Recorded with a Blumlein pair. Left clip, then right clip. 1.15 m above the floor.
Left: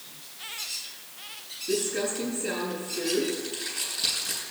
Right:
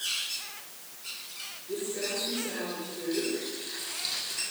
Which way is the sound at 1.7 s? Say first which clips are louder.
Left 5 dB; 55° left.